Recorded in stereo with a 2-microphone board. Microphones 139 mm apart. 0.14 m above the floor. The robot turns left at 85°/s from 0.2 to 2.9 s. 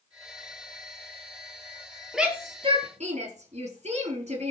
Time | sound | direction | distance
2.1 | a shout | centre (ahead or behind) | 3 m